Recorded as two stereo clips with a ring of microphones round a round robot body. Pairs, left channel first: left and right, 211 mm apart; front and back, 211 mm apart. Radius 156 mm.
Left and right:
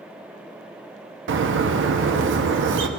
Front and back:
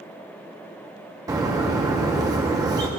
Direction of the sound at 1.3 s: 105° right.